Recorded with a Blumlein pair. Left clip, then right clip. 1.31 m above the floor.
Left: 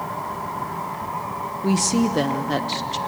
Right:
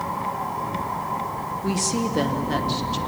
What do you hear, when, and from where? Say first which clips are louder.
1.6 s a woman speaking: left 4 dB; 10° left, 1.6 m